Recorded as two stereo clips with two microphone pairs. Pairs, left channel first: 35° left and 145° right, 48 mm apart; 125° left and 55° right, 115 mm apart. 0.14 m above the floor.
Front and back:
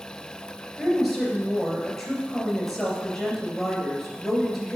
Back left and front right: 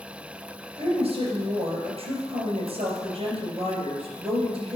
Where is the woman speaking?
55° right, 3 m.